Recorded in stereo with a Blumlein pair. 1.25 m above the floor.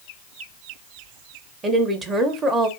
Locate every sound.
1.6 s a woman speaking: 20° right, 0.8 m